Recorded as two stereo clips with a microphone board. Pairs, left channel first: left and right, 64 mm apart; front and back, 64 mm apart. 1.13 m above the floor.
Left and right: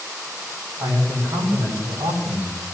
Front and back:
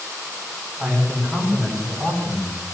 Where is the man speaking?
80° right, 6.5 m; by 2.5 s 75° right, 6 m.